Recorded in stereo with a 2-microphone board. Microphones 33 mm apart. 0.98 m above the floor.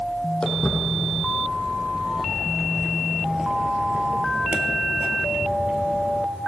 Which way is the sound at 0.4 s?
20° left (ahead or behind).